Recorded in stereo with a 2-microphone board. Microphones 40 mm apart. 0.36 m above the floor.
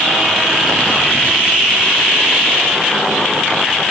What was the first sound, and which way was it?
Only background noise.